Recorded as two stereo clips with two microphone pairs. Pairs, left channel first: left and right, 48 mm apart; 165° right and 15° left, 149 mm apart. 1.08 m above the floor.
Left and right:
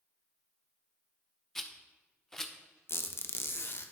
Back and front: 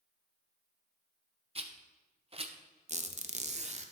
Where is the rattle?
15° left, 0.6 m.